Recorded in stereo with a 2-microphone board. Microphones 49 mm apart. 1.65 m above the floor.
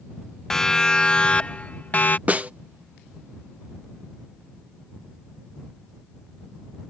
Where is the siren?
10° left (ahead or behind); by 2.2 s 40° left (ahead or behind).